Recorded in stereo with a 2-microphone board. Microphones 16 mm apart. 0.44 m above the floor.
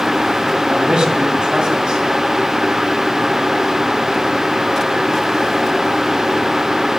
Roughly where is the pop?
No pop in this recording.